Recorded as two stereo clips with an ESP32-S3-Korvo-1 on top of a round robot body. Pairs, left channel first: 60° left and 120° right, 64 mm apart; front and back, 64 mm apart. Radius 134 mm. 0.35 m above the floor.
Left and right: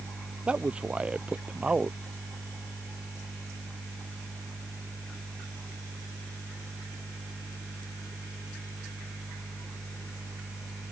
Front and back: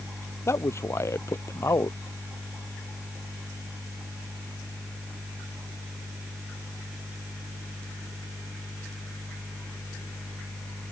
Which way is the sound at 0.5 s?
45° right.